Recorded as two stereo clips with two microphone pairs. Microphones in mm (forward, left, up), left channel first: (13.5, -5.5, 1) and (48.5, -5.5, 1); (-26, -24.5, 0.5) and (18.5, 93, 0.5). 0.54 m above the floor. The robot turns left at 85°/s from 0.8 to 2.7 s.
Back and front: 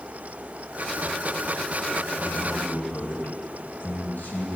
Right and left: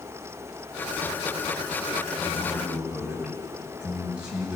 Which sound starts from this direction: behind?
A man speaking, at 2.2 s.